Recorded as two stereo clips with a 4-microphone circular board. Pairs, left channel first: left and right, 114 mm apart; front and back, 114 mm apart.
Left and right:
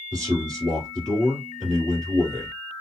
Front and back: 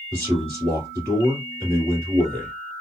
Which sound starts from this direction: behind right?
A man speaking, at 0.1 s.